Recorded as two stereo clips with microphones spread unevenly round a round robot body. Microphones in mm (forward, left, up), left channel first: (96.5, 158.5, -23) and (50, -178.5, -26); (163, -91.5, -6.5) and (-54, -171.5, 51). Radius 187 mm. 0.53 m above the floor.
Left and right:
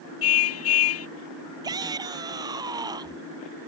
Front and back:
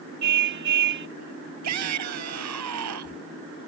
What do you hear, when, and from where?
0.2 s a car horn: 140° left
1.6 s a shout: straight behind